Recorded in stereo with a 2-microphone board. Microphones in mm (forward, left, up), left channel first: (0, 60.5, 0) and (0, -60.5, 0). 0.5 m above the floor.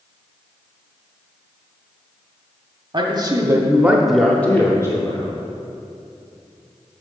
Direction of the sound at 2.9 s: 40° right (ahead or behind).